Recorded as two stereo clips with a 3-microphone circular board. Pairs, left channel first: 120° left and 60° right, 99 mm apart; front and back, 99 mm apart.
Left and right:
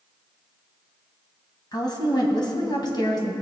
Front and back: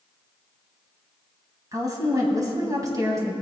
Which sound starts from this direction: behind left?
A woman speaking, at 1.7 s.